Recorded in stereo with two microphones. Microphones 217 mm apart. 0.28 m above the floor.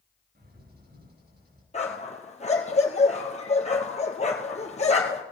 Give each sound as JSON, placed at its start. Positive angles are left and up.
{"t": 0.3, "sound": "a bird", "side_deg": -50, "distance_m": 5.5}
{"t": 1.7, "sound": "a dog barking", "side_deg": 30, "distance_m": 1.8}